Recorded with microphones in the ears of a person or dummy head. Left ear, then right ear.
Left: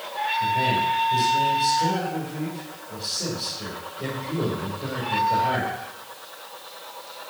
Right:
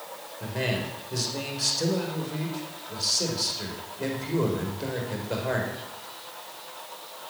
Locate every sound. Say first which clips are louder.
0.4 s a man speaking: left 7 dB; 80° right, 4 m